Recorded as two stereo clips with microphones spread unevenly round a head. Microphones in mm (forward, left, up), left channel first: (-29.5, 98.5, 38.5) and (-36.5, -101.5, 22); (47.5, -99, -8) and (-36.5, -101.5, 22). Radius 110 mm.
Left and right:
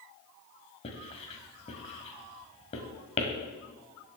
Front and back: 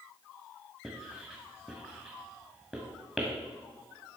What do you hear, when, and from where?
0.8 s writing: 125° left, 1.5 m